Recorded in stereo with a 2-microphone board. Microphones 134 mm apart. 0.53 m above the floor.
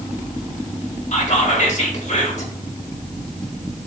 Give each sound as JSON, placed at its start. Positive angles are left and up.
{"t": 1.1, "sound": "whispering", "side_deg": 60, "distance_m": 1.8}